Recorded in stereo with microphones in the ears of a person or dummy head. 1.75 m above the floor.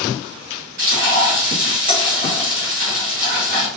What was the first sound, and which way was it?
Frying, 50° right (ahead or behind).